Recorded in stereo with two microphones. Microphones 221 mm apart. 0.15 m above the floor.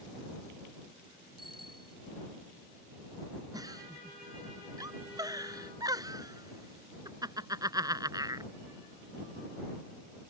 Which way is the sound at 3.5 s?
15° right (ahead or behind).